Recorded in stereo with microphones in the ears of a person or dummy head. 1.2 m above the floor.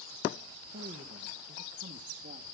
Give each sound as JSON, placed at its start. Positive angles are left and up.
{"t": 0.7, "sound": "a woman speaking", "side_deg": -40, "distance_m": 1.3}